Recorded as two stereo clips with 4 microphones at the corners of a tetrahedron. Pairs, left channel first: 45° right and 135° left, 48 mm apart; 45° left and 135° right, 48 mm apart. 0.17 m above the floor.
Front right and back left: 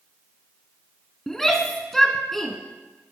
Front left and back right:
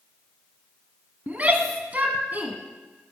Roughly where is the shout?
Behind right.